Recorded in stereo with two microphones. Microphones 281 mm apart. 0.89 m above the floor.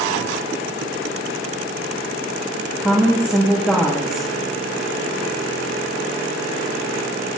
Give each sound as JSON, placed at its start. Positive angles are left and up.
{"t": 2.8, "sound": "a woman speaking", "side_deg": -5, "distance_m": 1.6}